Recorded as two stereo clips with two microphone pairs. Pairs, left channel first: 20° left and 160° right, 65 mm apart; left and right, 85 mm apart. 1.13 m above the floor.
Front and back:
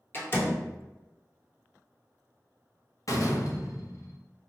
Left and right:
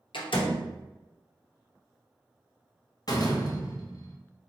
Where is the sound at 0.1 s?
75° left, 1.0 m.